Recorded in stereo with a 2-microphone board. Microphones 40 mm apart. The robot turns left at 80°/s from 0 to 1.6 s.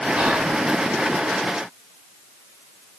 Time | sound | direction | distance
0.2 | whispering | 130° right | 1.0 m